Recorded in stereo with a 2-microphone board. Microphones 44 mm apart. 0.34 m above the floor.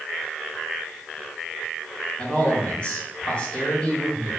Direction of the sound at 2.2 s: 30° left (ahead or behind).